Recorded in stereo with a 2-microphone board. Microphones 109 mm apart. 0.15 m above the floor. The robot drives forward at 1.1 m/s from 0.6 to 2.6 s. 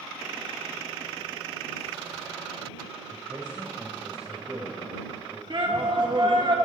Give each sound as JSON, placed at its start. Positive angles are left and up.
{"t": 3.1, "sound": "a man speaking", "side_deg": -35, "distance_m": 3.5}
{"t": 5.5, "sound": "a shout", "side_deg": -45, "distance_m": 2.0}